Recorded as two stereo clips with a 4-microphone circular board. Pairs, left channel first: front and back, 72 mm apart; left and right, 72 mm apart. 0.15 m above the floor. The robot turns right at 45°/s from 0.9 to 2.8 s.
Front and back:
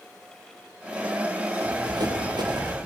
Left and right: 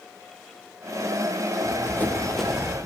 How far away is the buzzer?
I don't hear a buzzer.